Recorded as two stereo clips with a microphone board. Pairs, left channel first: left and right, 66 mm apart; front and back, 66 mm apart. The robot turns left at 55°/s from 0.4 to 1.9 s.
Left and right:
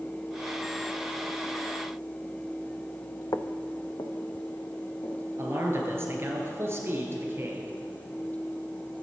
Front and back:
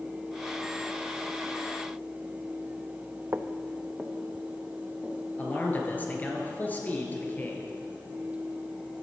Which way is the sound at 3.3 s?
125° left.